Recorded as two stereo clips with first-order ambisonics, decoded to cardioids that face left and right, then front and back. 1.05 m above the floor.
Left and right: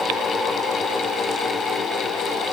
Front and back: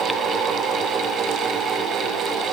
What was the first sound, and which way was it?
Only background noise.